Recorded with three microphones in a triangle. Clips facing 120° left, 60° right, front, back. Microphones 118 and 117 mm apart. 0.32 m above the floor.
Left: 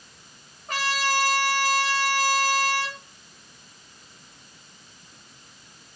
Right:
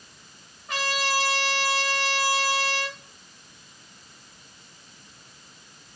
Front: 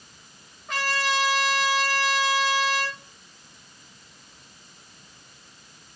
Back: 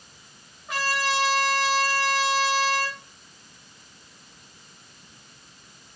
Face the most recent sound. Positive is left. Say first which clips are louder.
# left 1 dB, even
turn(degrees=100)